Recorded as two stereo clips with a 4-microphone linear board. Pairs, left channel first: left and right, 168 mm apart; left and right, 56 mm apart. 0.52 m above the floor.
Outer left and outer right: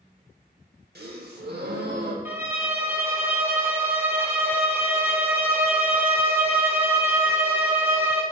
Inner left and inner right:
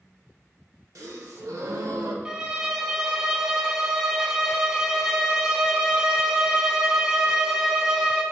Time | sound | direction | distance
0.9 | a gasp | 75° right (ahead or behind) | 0.8 m
2.2 | a violin | 15° right (ahead or behind) | 0.7 m